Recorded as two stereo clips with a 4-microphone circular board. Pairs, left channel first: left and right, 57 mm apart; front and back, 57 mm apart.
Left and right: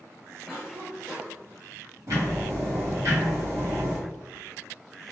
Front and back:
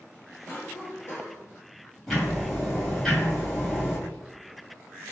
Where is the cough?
5° right, 1.0 m.